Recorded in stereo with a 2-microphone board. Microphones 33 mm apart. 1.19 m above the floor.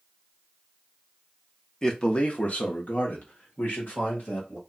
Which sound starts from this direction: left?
A man speaking, at 1.8 s.